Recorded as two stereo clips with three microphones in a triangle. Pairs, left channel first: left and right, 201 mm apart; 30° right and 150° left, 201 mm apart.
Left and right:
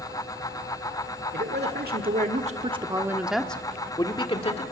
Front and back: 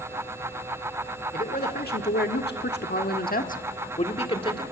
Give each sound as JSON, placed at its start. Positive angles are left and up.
{"t": 1.3, "sound": "a man speaking", "azimuth_deg": -70, "distance_m": 1.6}